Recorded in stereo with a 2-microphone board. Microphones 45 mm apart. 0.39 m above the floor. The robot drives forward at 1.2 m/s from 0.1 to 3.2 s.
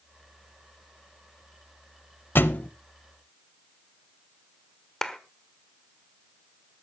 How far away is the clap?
About 1.2 m.